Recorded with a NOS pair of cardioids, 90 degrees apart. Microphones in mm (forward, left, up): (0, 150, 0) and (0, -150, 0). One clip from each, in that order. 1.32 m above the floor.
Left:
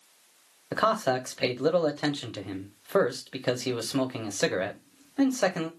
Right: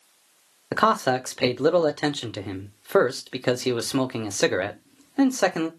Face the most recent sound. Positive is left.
turn(degrees=-20)